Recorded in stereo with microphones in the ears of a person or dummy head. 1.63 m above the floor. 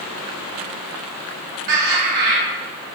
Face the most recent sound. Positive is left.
turn(degrees=-55)  # may be behind; listen again after turning